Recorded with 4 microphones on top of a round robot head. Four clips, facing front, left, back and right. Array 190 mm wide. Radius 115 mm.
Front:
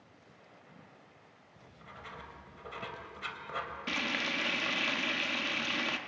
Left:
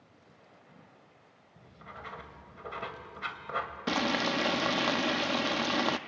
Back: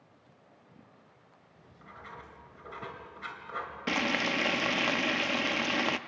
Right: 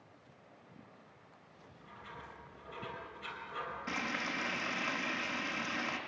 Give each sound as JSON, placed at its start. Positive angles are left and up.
{"t": 1.6, "sound": "writing", "azimuth_deg": 80, "distance_m": 2.5}
{"t": 3.9, "sound": "frying", "azimuth_deg": 120, "distance_m": 0.5}